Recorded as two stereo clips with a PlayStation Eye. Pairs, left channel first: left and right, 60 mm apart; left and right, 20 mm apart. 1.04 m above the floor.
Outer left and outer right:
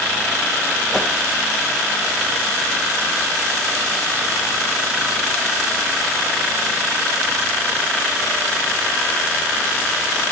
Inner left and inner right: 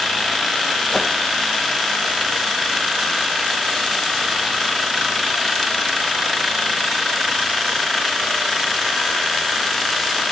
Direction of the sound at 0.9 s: 10° right (ahead or behind).